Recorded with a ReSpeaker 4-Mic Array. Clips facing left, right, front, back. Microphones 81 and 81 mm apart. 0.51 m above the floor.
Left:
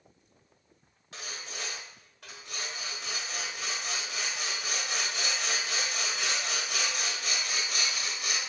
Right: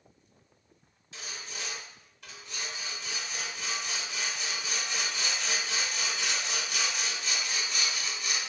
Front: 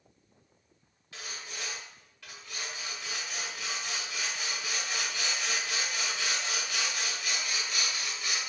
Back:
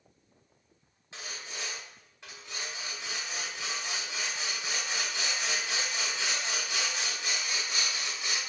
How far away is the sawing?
About 1.1 m.